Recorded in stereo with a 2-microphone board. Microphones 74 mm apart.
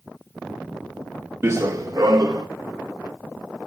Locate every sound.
1.4 s running footsteps: 30° right (ahead or behind), 0.7 m; by 2.5 s 50° right (ahead or behind), 1.7 m